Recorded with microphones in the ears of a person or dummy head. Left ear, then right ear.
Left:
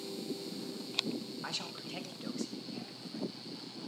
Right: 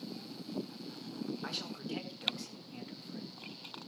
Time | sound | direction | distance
1.4 | a man speaking | 10° left (ahead or behind) | 3 m